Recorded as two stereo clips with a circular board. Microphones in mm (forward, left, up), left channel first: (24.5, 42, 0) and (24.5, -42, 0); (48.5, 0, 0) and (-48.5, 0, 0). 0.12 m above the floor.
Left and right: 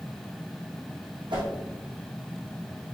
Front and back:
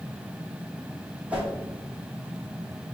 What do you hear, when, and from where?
1.3 s a whoosh: 105° right, 1.2 m